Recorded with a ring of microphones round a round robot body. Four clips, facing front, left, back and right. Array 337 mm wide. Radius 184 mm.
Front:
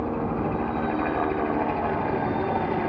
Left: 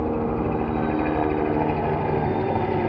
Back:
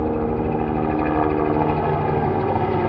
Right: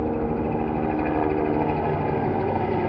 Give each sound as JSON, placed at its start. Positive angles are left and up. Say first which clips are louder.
{"t": 0.0, "sound": "a helicopter", "louder": "left 1 dB, back 5 dB", "azimuth_deg": 175}